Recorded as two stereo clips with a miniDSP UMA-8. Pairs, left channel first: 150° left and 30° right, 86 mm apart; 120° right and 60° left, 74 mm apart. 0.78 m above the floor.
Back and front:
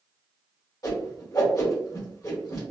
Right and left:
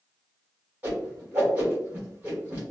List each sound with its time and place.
0.8 s a whoosh: 125° left, 1.6 m